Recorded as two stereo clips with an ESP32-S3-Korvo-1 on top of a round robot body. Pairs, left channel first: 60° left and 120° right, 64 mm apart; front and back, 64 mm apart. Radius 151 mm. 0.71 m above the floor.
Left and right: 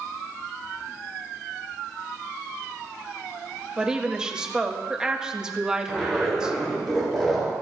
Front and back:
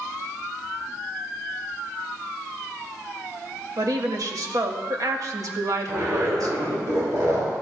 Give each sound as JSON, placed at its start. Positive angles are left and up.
{"t": 3.8, "sound": "a woman speaking", "azimuth_deg": 160, "distance_m": 1.5}
{"t": 5.9, "sound": "a zipper", "azimuth_deg": 145, "distance_m": 5.0}